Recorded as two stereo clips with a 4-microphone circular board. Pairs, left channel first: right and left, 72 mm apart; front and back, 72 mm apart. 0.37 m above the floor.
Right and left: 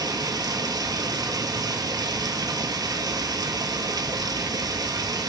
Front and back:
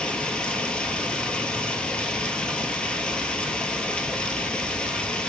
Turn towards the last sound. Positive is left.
turn(degrees=75)